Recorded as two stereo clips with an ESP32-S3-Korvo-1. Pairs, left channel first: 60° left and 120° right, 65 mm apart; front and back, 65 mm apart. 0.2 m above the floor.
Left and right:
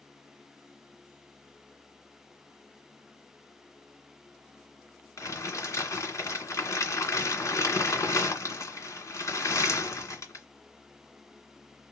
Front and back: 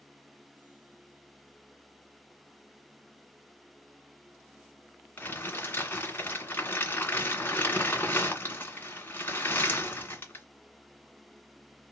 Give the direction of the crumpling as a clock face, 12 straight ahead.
10 o'clock.